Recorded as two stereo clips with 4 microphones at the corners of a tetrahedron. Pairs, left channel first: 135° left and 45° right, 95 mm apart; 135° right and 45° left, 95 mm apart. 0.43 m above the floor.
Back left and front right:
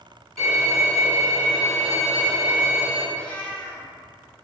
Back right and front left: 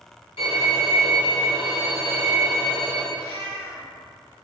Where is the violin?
140° right, 1.5 m.